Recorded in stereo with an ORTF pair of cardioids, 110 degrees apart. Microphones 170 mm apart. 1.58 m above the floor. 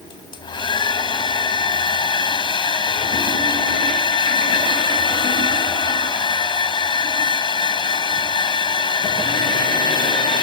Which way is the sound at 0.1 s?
30° left.